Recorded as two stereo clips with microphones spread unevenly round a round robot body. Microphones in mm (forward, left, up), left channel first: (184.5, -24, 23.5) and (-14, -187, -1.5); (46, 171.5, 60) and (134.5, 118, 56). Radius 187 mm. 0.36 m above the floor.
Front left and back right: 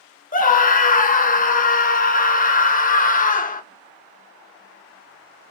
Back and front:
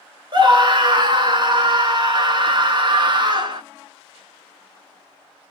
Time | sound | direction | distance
0.3 | a scream | 15° right | 1.3 m